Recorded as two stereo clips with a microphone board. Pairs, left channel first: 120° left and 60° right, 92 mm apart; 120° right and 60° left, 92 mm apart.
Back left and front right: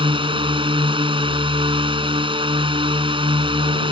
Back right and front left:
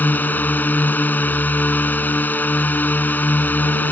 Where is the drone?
50° right.